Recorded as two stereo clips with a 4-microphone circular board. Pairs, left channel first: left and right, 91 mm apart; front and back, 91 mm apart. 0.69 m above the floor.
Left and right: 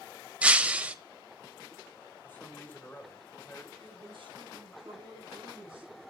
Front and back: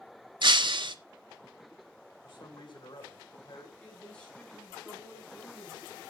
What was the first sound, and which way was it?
Breaking glass, 165° right.